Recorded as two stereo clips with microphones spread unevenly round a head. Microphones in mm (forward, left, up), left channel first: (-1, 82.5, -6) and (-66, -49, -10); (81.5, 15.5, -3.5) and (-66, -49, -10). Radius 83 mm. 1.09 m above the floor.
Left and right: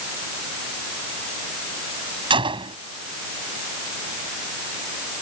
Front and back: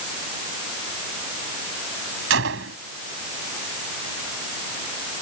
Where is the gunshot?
175° right.